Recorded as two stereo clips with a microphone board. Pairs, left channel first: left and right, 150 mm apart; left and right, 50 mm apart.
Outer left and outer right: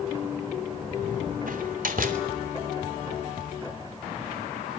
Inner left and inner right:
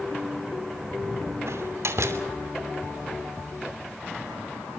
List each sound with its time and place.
1.5 s a door slam: 65° right (ahead or behind), 2.5 m